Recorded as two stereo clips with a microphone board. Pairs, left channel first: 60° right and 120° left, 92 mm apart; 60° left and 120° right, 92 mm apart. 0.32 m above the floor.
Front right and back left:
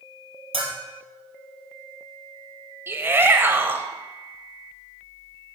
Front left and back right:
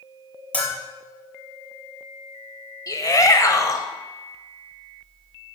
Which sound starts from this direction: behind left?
A bell, at 0.5 s.